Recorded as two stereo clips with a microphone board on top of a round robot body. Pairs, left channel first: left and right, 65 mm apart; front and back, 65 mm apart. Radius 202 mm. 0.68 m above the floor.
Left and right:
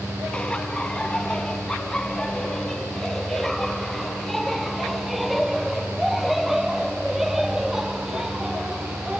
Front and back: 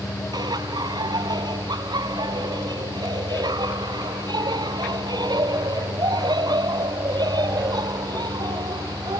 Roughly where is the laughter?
Behind.